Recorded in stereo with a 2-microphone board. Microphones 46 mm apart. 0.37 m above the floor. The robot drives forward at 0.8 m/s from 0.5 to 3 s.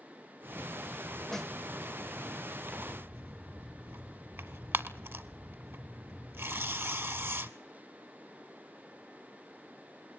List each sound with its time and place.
1.3 s a snare drum: 10° left (ahead or behind), 0.8 m
2.7 s tearing paper: 60° right (ahead or behind), 1.1 m; by 7.5 s 70° right (ahead or behind), 1.0 m